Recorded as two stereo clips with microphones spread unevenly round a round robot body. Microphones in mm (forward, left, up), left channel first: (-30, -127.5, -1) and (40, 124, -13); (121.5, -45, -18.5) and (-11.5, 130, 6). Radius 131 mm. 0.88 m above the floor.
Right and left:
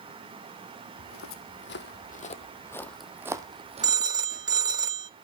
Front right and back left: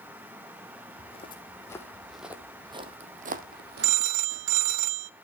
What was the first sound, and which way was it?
Footsteps, 120° right.